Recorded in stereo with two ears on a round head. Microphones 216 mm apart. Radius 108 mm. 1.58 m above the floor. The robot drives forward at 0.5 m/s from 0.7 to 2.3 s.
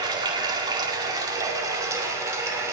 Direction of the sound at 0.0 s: 15° right (ahead or behind).